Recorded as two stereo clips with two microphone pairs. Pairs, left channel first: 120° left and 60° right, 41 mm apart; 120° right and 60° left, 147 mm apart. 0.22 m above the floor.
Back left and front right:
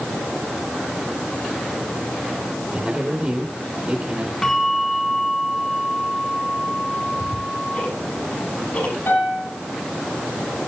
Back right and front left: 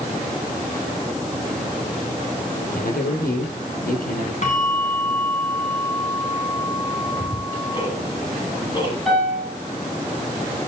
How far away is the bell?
About 3 m.